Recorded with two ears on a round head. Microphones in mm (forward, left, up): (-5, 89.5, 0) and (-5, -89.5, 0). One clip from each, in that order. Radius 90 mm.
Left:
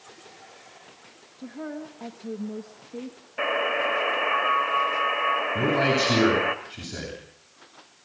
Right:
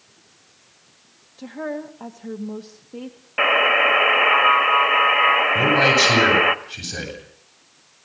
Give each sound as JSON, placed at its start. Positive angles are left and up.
{"t": 1.4, "sound": "a woman speaking", "side_deg": -45, "distance_m": 1.4}
{"t": 3.4, "sound": "a buzzer", "side_deg": -75, "distance_m": 1.5}
{"t": 5.5, "sound": "a man speaking", "side_deg": -25, "distance_m": 8.5}